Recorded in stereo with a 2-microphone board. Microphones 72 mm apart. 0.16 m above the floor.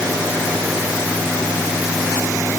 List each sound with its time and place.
Only background noise.